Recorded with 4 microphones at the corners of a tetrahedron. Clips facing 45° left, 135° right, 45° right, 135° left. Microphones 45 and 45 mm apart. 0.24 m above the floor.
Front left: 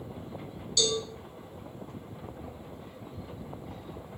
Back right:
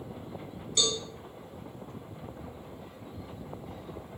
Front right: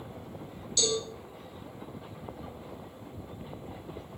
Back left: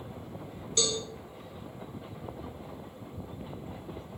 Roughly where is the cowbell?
Behind.